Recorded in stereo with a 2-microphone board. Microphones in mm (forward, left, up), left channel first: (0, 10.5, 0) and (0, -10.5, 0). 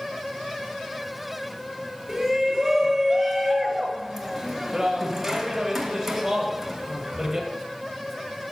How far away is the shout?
About 1.8 m.